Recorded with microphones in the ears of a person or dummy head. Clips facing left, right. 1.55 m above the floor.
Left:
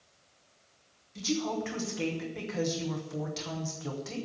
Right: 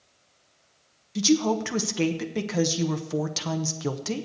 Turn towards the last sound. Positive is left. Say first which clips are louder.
# right 9 dB
turn(degrees=-75)  # may be behind; listen again after turning